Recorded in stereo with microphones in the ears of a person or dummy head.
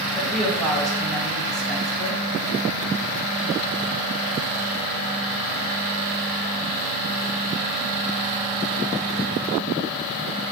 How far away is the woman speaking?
About 1.9 m.